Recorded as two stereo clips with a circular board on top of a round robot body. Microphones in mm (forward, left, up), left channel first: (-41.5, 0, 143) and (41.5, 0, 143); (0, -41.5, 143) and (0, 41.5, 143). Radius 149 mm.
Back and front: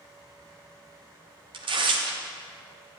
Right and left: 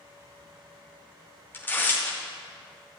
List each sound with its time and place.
1.5 s tearing paper: 20° right, 0.7 m